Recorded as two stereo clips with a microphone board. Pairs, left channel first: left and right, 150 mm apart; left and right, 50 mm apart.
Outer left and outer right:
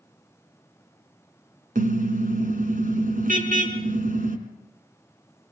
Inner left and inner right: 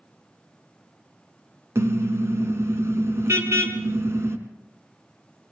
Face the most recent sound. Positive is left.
turn(degrees=-65)  # may be behind; listen again after turning